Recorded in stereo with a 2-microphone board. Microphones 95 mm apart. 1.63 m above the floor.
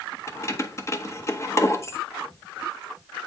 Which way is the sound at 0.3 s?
30° left (ahead or behind).